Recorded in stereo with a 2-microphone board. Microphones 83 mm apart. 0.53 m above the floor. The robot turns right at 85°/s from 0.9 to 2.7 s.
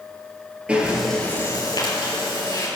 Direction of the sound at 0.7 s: 10° right.